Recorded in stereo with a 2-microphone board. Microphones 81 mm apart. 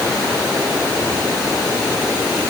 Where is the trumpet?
No trumpet in this recording.